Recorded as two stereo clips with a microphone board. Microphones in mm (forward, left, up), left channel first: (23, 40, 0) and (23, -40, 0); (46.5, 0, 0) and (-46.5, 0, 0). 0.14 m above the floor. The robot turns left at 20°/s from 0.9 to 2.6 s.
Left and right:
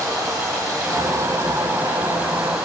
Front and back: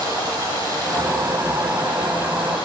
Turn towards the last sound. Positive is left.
turn(degrees=-165)